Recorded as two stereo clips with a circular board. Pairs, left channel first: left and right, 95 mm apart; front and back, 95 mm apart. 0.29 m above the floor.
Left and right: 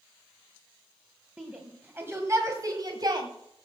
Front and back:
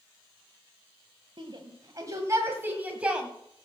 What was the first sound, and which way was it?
A shout, 165° right.